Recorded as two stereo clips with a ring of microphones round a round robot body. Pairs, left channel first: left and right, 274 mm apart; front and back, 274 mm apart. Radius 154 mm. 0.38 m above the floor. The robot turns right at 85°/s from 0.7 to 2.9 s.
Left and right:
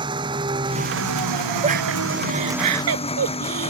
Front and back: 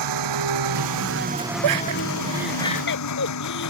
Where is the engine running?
165° right; by 3.7 s 20° left.